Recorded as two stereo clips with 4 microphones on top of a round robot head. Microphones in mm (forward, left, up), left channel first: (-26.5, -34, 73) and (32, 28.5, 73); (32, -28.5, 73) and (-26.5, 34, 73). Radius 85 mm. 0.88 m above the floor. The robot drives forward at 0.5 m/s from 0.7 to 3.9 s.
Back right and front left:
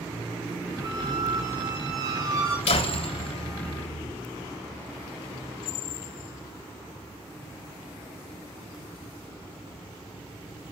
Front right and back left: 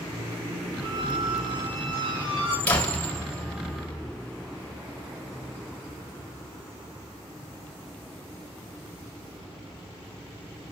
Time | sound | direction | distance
0.8 | a squeak | 85° left | 5.5 m
2.7 | a door slam | 120° right | 2.5 m